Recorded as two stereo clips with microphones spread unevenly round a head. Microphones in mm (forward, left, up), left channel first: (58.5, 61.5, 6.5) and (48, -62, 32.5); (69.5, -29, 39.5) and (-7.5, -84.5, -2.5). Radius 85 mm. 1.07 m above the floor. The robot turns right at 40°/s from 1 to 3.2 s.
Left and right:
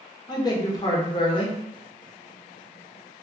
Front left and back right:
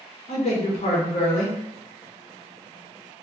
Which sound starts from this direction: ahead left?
A man speaking, at 0.3 s.